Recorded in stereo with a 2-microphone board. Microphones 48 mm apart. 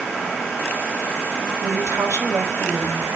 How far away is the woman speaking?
About 3.5 m.